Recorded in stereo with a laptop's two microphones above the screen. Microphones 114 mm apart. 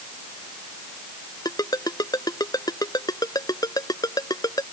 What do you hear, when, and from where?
1.4 s a ringtone: 30° left (ahead or behind)